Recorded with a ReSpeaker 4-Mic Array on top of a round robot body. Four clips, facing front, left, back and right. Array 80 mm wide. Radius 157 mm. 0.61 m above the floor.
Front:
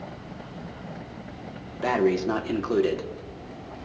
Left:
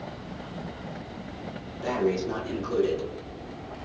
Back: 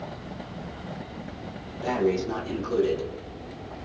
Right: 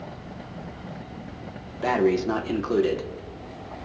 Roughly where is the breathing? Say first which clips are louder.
Right 5 dB, front 2 dB; ahead right.